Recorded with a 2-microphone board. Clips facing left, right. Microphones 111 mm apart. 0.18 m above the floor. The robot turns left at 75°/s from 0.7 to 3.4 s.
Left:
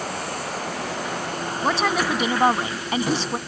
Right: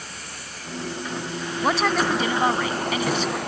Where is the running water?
110° left; by 3.5 s 95° right.